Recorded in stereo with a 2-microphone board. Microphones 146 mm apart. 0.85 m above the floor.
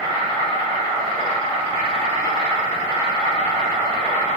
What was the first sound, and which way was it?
An insect, 35° left (ahead or behind).